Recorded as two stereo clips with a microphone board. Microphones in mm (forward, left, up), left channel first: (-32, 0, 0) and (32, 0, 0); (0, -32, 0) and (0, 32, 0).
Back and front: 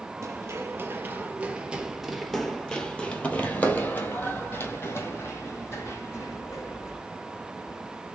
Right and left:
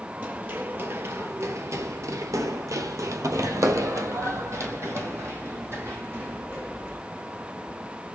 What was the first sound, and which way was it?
Running footsteps, 30° left.